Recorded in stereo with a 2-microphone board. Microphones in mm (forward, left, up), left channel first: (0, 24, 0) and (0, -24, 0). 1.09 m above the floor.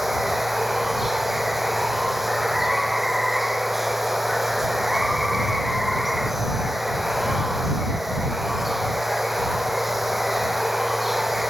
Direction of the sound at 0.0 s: 5° right (ahead or behind).